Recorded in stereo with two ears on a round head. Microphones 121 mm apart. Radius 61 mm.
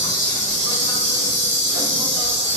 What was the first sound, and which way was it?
An insect, 65° right (ahead or behind).